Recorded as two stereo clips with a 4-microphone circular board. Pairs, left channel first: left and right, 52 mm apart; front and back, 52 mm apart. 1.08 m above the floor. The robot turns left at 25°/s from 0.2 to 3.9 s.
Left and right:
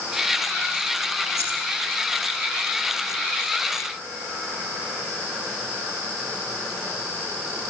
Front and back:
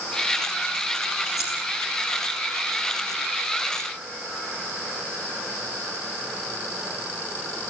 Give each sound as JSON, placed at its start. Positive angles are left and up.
{"t": 1.4, "sound": "scissors", "azimuth_deg": -90, "distance_m": 9.0}